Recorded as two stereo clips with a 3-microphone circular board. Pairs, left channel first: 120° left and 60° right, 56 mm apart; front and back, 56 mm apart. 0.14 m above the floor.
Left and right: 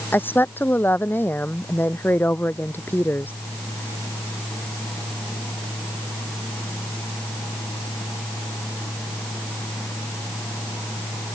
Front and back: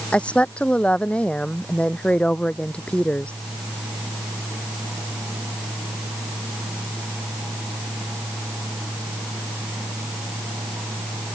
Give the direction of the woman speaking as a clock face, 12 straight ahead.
10 o'clock.